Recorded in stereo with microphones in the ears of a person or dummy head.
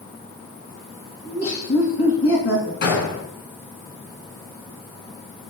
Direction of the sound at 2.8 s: 55° left (ahead or behind).